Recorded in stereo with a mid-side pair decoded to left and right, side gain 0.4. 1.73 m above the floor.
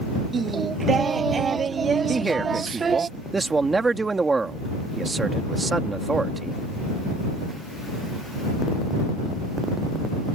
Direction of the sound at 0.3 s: 45° right.